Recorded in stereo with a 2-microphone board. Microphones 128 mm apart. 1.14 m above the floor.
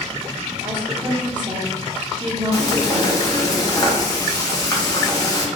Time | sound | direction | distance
0.6 | a woman speaking | 35° right (ahead or behind) | 0.8 m
2.5 | frying | 30° left (ahead or behind) | 1.1 m